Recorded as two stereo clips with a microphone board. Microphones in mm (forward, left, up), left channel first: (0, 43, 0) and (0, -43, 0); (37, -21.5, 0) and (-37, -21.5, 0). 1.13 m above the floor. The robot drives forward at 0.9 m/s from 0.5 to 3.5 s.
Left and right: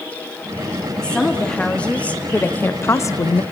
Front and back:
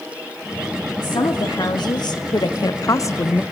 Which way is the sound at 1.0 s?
10° left.